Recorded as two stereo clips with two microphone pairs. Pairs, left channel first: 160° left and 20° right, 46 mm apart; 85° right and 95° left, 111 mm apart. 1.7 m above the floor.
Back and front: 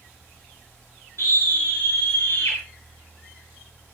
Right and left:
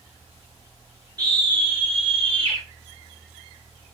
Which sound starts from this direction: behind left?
A scream, at 1.2 s.